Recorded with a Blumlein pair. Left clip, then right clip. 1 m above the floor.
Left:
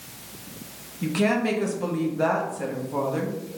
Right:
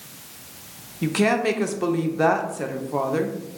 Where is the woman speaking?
15° right, 0.5 m.